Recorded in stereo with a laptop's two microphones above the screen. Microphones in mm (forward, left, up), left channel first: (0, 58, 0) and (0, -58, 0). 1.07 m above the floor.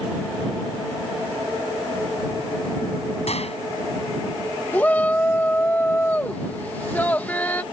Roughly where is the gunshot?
Left.